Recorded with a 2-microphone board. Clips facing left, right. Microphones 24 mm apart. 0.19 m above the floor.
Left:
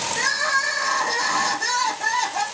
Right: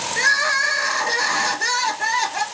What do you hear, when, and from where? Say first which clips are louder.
0.2 s crying: right 5 dB; 30° right (ahead or behind), 0.8 m